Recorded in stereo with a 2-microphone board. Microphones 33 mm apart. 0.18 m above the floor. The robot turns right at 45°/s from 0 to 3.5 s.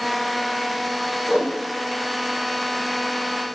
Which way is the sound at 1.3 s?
25° right (ahead or behind).